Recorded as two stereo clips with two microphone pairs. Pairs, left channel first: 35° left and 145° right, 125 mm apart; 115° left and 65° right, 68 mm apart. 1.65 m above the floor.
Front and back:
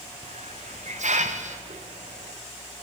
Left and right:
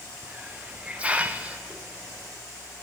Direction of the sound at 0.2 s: 140° right.